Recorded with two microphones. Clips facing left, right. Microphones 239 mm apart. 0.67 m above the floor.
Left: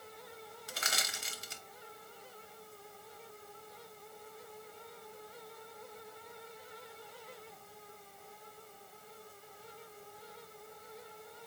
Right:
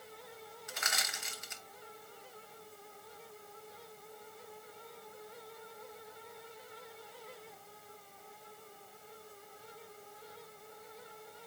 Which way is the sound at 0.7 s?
35° left (ahead or behind).